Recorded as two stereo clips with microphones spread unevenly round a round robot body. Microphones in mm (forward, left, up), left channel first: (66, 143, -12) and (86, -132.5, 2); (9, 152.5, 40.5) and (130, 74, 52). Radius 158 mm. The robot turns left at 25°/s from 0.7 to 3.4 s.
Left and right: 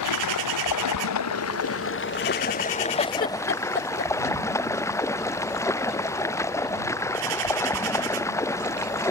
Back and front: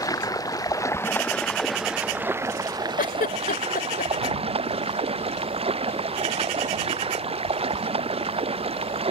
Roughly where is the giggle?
Behind.